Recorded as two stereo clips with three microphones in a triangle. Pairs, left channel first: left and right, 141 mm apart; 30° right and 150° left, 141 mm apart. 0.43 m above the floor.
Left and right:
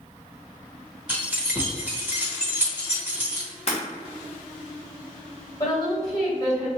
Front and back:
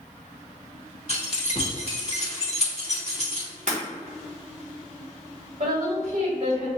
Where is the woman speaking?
145° left, 1.9 m.